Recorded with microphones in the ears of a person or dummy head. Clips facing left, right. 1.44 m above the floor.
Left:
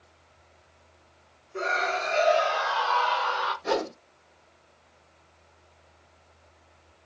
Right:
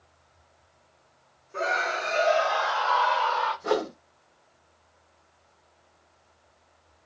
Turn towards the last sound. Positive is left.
turn(degrees=-65)  # may be behind; listen again after turning